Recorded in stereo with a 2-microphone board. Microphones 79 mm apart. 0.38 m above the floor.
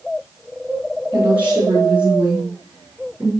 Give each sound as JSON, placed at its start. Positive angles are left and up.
{"t": 1.1, "sound": "a woman speaking", "side_deg": -20, "distance_m": 2.5}